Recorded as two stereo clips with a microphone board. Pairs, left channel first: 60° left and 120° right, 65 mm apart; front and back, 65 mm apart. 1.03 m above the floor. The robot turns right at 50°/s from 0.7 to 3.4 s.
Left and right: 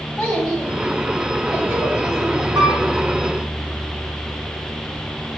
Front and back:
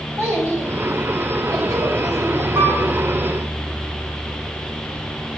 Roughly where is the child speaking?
Behind left.